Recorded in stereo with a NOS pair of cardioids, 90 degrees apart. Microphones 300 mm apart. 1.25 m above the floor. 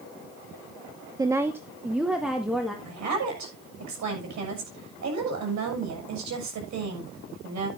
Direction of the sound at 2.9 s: 65° right.